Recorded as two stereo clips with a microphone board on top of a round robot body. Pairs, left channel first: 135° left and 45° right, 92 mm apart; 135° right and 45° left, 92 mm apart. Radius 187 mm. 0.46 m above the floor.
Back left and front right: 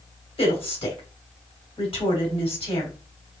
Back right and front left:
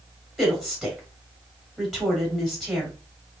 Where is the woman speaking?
135° left, 3 m.